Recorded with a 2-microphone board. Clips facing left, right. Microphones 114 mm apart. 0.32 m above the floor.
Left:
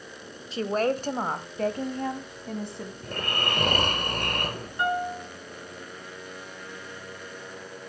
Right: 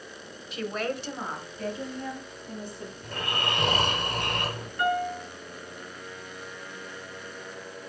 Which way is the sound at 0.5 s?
30° left (ahead or behind).